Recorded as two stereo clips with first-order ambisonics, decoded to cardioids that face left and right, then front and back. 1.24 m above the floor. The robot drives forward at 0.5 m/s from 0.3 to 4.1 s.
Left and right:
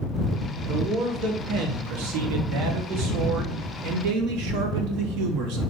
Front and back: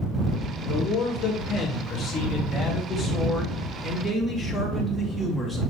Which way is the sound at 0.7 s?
55° right.